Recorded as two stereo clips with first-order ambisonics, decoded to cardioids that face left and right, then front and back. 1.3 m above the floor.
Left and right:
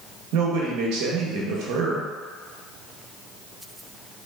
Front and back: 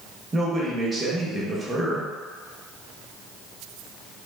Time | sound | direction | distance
0.3 | a man speaking | 105° right | 0.7 m